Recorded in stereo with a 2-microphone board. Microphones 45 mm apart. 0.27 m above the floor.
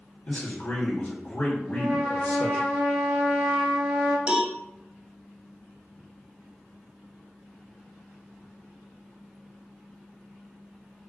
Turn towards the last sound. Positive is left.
turn(degrees=-20)  # may be behind; listen again after turning